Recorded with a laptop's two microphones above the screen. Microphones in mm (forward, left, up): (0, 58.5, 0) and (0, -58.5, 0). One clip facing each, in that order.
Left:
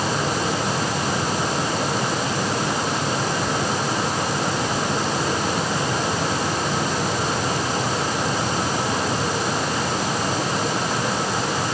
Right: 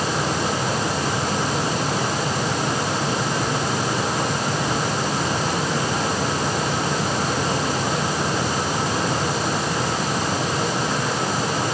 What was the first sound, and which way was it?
Only background noise.